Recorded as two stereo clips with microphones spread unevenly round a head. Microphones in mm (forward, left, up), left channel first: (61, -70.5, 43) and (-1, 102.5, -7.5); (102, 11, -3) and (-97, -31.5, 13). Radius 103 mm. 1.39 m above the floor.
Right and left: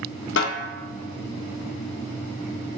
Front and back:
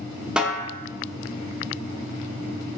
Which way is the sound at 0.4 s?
85° right.